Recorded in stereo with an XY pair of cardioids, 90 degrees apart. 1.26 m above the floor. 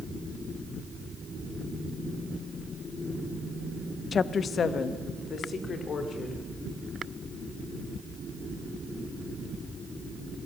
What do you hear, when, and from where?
4.1 s a woman speaking: 50° left, 0.8 m; by 6.4 s 60° left, 4.5 m